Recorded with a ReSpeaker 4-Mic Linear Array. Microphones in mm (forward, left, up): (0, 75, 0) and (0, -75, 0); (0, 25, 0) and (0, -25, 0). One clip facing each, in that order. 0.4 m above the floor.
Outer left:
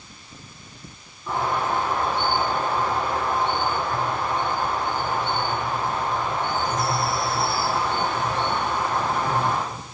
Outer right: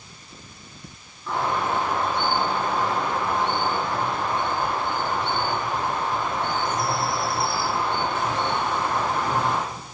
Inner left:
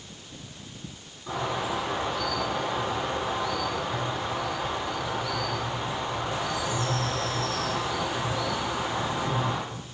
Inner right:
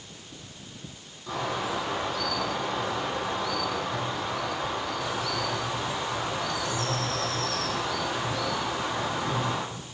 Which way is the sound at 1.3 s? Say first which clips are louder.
Even, inner left 1 dB; 15° left (ahead or behind).